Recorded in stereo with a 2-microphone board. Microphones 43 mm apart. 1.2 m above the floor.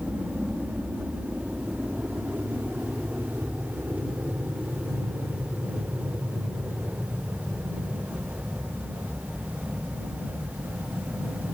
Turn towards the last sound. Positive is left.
turn(degrees=-60)  # may be behind; listen again after turning